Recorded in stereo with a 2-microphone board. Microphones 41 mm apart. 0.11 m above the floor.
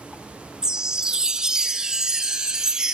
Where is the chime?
20° right (ahead or behind), 0.5 m.